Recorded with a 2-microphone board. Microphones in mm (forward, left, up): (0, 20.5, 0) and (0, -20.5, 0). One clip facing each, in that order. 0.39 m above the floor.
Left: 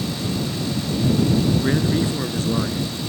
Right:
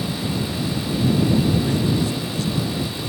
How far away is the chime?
I don't hear a chime.